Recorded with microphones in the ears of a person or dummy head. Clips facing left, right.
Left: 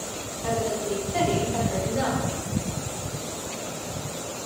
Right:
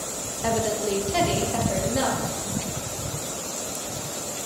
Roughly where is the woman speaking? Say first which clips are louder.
Right 2 dB; right.